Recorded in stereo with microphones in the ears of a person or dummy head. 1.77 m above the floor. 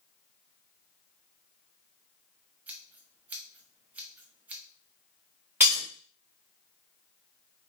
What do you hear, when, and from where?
2.7 s scissors: 5° right (ahead or behind), 0.9 m
5.6 s breaking glass: 5° right (ahead or behind), 1.2 m